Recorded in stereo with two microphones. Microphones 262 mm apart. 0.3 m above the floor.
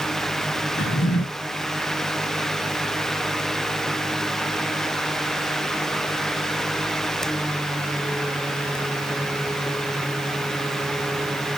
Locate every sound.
0.8 s a drawer: 50° left (ahead or behind), 1.0 m